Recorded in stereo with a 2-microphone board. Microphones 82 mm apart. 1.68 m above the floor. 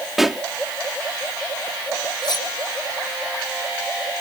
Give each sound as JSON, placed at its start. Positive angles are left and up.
{"t": 0.2, "sound": "a pop", "side_deg": -5}
{"t": 2.2, "sound": "cutlery clinking", "side_deg": 60}